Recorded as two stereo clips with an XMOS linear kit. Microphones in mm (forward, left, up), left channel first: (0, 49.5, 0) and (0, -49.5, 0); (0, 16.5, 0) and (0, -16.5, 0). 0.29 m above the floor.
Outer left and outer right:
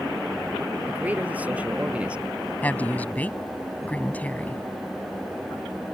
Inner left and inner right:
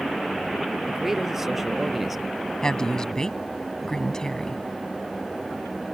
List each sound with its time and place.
0.9 s a man speaking: 15° right (ahead or behind); by 2.5 s 10° right (ahead or behind)
2.6 s a woman speaking: 15° left (ahead or behind)